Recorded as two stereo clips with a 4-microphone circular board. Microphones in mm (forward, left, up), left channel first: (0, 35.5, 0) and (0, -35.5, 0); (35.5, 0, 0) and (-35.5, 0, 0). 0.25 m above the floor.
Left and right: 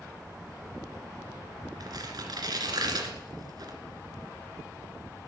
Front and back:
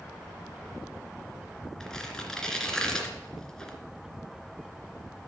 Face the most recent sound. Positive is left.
turn(degrees=-80)